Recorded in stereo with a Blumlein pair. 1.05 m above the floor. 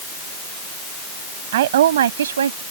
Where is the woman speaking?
55° right; by 2.6 s 70° right.